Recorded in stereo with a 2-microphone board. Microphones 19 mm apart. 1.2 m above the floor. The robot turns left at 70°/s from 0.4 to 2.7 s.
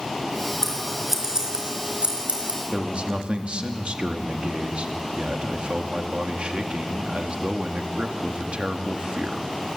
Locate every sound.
0.6 s scissors: 20° left (ahead or behind), 4 m; by 2.6 s 60° right (ahead or behind), 4 m
2.7 s a man speaking: 60° right (ahead or behind), 1.7 m